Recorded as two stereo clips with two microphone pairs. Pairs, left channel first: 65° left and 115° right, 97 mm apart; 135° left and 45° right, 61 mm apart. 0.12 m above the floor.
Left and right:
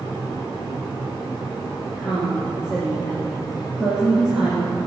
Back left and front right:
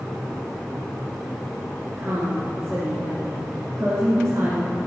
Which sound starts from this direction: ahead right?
A woman speaking, at 2.0 s.